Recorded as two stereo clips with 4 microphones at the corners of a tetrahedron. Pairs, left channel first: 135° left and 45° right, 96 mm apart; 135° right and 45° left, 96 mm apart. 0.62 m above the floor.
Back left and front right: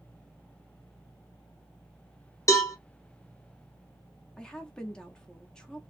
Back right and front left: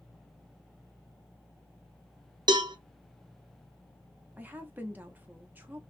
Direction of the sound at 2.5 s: 80° left.